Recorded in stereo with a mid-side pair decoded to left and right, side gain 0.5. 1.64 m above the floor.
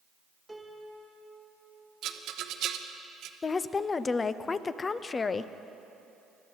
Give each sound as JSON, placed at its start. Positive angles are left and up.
{"t": 0.5, "sound": "a piano", "azimuth_deg": 0, "distance_m": 1.9}
{"t": 2.0, "sound": "a rattle", "azimuth_deg": -70, "distance_m": 0.8}
{"t": 3.4, "sound": "a woman speaking", "azimuth_deg": 35, "distance_m": 0.5}